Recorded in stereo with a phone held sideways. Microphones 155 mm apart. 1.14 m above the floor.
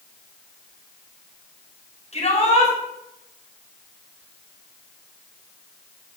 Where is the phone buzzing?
No phone buzzing in this recording.